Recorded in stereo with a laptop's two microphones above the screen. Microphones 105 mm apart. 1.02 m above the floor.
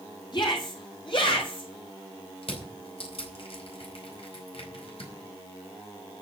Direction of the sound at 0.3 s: 45° left (ahead or behind).